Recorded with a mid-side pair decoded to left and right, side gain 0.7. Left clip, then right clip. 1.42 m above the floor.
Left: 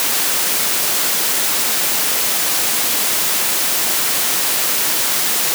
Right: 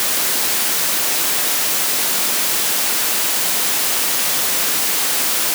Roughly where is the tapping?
No tapping in this recording.